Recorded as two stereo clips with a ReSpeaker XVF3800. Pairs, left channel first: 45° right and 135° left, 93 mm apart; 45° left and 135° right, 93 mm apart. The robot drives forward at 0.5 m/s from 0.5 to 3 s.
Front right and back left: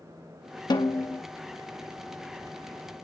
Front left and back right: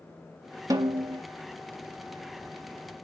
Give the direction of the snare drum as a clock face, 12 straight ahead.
3 o'clock.